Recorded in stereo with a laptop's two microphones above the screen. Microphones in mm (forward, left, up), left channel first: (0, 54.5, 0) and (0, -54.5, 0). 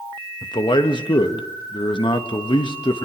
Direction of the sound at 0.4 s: 50° left (ahead or behind).